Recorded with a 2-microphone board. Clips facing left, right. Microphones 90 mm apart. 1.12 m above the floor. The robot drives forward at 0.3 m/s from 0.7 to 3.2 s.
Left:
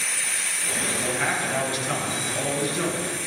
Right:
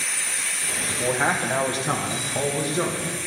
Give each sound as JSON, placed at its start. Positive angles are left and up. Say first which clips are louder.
{"t": 0.9, "sound": "a man speaking", "louder": "right 4 dB", "side_deg": -40, "distance_m": 0.9}